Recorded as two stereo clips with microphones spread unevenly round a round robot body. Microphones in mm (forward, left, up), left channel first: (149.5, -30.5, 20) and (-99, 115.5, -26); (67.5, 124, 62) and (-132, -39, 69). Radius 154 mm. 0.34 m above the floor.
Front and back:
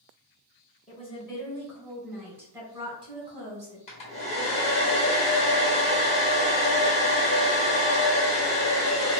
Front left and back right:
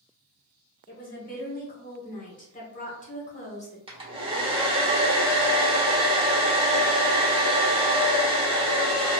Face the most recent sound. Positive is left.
turn(degrees=-95)